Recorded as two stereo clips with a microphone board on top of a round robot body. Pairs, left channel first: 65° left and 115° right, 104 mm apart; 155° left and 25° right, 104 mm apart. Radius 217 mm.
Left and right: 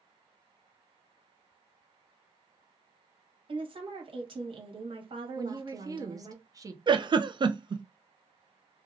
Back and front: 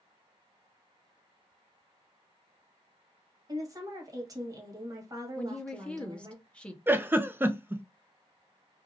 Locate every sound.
3.5 s a woman speaking: 80° right, 1.5 m
5.3 s a woman speaking: 130° right, 1.0 m
6.9 s a giggle: 90° right, 0.7 m